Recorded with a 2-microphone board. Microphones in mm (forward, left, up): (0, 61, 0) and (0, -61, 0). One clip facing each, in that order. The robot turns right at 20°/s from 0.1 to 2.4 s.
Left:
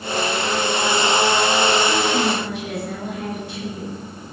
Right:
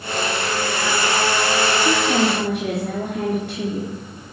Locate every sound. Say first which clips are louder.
1.9 s a woman speaking: right 1 dB; 75° right (ahead or behind), 3.5 m; by 4.0 s 65° right (ahead or behind), 3.5 m